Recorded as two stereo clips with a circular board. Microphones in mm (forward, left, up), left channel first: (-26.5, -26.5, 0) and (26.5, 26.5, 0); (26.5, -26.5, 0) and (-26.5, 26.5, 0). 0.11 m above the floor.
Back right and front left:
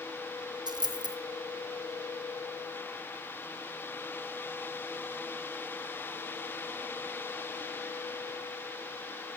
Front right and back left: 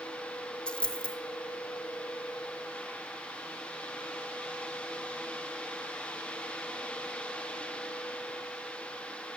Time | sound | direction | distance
0.7 | a dropped coin | 35° left | 1.0 m